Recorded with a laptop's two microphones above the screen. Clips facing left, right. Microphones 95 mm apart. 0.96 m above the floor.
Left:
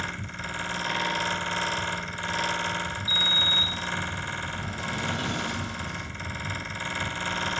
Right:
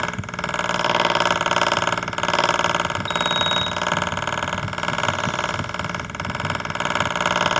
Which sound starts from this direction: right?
A fan, at 0.0 s.